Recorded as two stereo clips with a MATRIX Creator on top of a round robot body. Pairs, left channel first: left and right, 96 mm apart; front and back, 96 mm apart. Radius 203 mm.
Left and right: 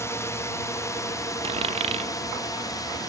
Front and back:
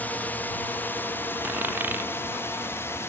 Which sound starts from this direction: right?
A dropped coin, at 1.4 s.